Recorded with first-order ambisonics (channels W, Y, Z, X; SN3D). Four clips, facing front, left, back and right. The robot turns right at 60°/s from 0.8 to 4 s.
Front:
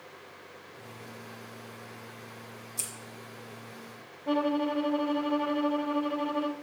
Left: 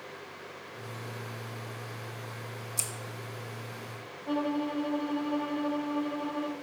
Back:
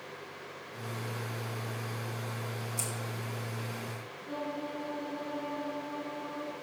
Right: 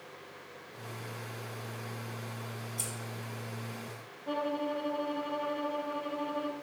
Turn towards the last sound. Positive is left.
turn(degrees=0)